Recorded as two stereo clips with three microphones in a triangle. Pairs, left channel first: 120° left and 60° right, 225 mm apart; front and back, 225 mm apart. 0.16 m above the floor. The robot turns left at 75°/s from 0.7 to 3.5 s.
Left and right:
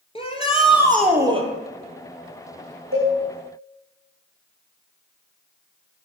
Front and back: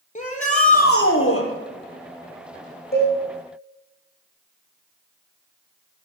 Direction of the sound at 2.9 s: 45° right.